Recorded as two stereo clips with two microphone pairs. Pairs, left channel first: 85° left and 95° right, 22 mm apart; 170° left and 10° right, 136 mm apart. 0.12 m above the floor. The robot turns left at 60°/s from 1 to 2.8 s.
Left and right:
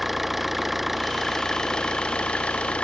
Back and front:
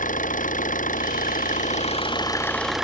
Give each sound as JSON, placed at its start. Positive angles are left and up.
{"t": 0.0, "sound": "an engine running", "azimuth_deg": 180}